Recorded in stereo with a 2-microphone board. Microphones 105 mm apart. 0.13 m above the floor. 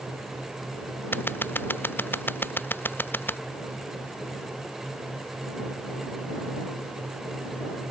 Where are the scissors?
20° left (ahead or behind).